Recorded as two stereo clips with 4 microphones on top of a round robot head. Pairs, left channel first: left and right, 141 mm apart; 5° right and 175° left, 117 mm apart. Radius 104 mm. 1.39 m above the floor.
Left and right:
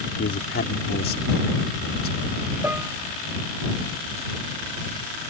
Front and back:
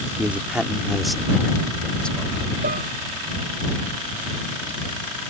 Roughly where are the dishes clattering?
Behind.